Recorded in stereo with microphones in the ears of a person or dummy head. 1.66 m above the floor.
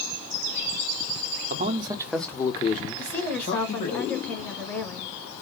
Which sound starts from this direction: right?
A man speaking, at 1.5 s.